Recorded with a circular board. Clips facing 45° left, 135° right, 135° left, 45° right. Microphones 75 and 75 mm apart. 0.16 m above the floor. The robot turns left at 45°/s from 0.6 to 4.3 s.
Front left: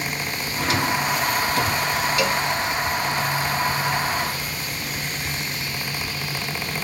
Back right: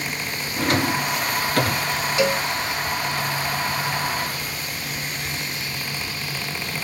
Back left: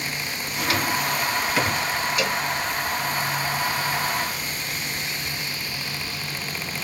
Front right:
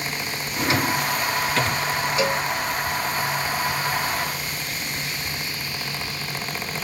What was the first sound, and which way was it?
A drawer, 100° right.